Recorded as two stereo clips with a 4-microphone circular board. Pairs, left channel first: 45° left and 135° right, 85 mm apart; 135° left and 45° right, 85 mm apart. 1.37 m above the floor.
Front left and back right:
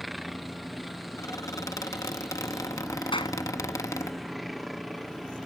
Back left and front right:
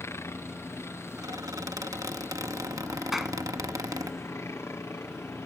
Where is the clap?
40° left.